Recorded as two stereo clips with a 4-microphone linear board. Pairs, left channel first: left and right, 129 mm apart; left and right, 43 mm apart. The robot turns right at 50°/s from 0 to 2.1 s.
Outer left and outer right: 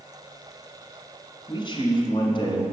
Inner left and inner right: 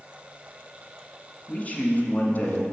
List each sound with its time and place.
1.5 s a man speaking: 65° left, 1.3 m; by 2.6 s 95° left, 1.3 m